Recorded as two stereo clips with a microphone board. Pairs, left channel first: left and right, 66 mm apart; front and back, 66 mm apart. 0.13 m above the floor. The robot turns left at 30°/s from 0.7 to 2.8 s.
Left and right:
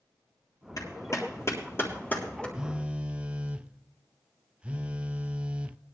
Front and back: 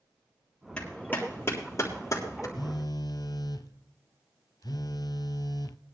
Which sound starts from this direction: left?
A clap, at 0.8 s.